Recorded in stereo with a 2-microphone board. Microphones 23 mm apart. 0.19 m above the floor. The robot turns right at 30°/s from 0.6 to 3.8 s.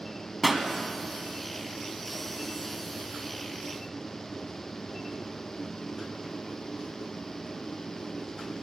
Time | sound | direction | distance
0.4 | a pop | 5° right (ahead or behind) | 1.0 m